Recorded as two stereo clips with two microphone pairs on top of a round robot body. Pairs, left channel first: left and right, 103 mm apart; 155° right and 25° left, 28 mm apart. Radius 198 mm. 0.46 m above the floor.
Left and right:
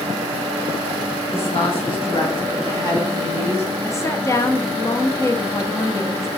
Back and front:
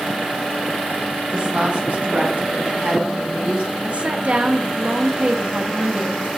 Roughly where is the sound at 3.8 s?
Ahead left.